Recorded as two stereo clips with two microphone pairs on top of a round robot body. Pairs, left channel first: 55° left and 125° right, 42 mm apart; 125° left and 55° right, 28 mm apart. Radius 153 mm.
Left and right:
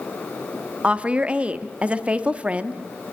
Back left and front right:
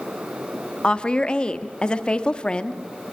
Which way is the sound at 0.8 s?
Straight behind.